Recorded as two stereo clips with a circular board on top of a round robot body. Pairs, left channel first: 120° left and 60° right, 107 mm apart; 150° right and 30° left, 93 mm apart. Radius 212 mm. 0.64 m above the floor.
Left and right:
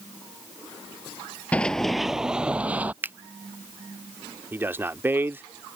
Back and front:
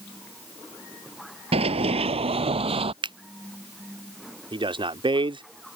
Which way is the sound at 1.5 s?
40° left.